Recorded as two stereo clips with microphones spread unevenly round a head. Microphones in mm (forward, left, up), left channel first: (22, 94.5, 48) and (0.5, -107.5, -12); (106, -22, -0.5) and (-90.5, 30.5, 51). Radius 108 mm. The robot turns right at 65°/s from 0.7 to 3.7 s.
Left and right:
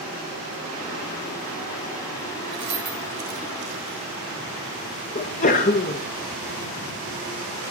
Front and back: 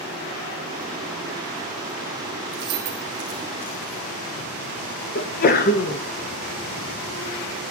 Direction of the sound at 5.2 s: 30° left.